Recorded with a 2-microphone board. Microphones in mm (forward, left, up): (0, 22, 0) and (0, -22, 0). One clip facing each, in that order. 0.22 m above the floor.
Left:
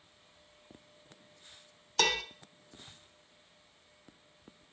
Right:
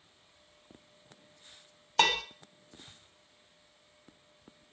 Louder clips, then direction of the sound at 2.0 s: Right 3 dB; 30° right (ahead or behind).